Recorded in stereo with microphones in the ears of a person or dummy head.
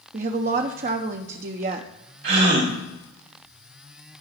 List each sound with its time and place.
0.1 s a woman speaking: 45° right (ahead or behind), 0.7 m
2.2 s a gasp: 55° right (ahead or behind), 3 m